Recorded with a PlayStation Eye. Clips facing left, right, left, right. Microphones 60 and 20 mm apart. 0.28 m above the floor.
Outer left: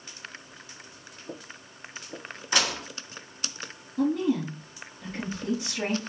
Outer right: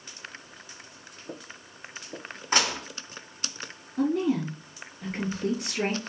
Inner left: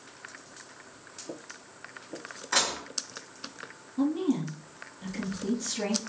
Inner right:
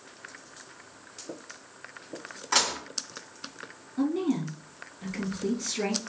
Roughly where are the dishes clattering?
Right.